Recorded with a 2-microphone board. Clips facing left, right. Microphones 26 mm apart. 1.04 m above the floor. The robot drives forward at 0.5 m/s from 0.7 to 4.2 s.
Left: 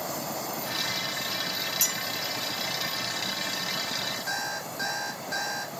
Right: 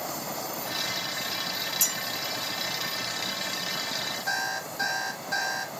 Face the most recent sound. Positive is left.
turn(degrees=-10)  # may be behind; listen again after turning